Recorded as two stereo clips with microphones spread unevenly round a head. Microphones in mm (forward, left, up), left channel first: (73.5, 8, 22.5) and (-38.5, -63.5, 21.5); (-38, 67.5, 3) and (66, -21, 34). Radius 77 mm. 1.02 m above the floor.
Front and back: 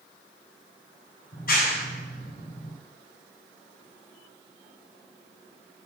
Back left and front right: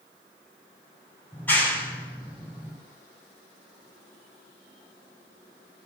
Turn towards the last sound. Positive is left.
turn(degrees=60)